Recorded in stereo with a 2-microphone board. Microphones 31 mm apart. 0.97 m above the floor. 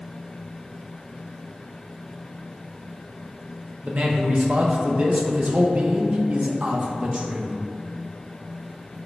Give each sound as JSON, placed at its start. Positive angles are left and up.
{"t": 3.8, "sound": "a man speaking", "side_deg": -45, "distance_m": 0.6}